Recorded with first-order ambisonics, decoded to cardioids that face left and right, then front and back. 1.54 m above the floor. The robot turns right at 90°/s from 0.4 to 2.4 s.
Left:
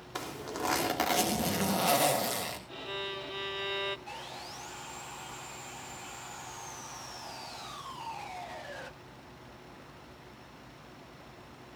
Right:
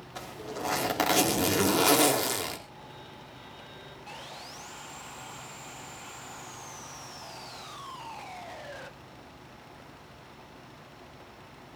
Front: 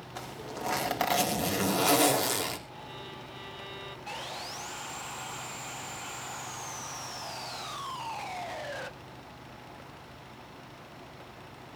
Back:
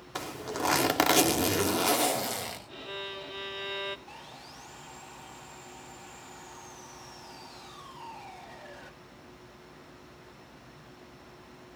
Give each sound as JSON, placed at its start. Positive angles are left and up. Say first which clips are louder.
{"t": 0.1, "sound": "a zipper", "louder": "left 1 dB, back 5 dB", "azimuth_deg": 140, "distance_m": 3.0}
{"t": 2.7, "sound": "a violin", "louder": "left 9 dB, back 4 dB", "azimuth_deg": 120, "distance_m": 1.7}
{"t": 4.1, "sound": "sawing", "louder": "even, front 8 dB", "azimuth_deg": -5, "distance_m": 1.0}